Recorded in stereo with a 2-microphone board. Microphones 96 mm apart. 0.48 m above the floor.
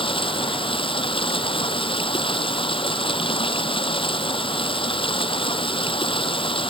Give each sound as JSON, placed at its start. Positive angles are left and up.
{"t": 0.0, "sound": "running water", "side_deg": 65}